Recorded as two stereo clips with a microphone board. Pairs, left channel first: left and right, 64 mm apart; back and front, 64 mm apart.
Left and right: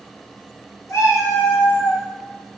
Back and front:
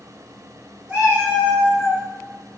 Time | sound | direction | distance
0.9 | a cat meowing | 75° left | 1.6 m